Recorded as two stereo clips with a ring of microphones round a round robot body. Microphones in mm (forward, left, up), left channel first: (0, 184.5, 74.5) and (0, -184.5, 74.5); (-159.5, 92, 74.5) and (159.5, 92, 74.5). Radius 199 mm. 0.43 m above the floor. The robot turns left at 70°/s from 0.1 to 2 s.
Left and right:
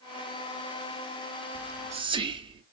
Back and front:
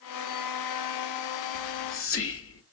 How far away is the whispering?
About 1.2 m.